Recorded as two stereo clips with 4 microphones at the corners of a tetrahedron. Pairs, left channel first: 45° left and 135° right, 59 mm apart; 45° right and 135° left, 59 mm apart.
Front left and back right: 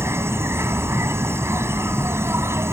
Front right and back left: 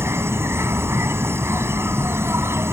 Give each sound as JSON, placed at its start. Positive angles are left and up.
{"t": 0.0, "sound": "an insect", "azimuth_deg": 180}